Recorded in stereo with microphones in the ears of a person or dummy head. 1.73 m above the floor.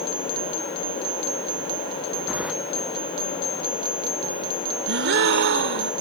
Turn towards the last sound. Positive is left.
turn(degrees=-65)  # may be behind; listen again after turning